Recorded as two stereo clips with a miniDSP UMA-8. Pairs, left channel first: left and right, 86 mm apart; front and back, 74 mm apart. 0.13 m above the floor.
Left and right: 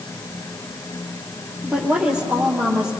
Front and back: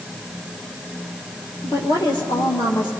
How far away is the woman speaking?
About 4.5 m.